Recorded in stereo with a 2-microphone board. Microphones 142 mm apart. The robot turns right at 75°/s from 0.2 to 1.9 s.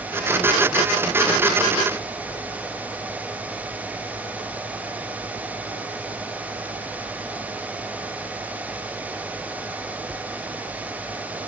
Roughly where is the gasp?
I don't hear a gasp.